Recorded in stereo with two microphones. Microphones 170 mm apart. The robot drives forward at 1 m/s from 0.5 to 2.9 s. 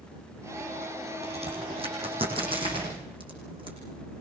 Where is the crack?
40° right (ahead or behind), 7 m; by 3.8 s 30° right (ahead or behind), 8 m.